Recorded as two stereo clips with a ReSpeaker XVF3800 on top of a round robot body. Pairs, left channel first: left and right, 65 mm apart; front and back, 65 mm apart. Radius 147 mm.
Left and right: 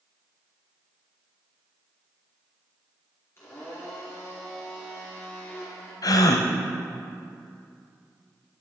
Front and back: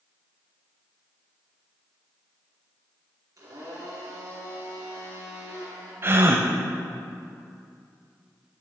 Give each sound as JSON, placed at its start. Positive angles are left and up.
{"t": 3.4, "sound": "a blender", "azimuth_deg": 140, "distance_m": 4.0}
{"t": 6.0, "sound": "a gasp", "azimuth_deg": 120, "distance_m": 0.6}